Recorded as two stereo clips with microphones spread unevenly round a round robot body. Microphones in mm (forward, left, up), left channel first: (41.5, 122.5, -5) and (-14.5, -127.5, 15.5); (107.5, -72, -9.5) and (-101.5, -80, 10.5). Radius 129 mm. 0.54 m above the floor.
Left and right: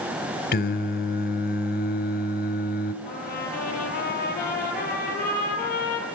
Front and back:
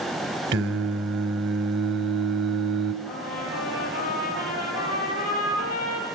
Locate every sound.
0.5 s singing: 130° left, 1.4 m
3.0 s a trumpet: 20° left, 9 m